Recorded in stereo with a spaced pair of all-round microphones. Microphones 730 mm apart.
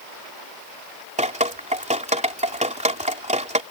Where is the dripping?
10° right (ahead or behind).